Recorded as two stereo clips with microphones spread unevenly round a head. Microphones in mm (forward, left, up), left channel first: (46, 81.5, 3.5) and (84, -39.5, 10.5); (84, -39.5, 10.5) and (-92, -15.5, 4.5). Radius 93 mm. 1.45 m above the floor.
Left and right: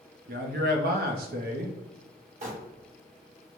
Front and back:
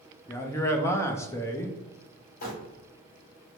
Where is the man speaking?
85° right, 0.6 m.